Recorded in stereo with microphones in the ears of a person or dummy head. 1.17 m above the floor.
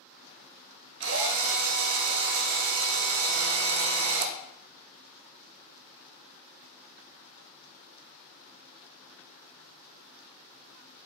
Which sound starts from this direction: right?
A drill, at 1.0 s.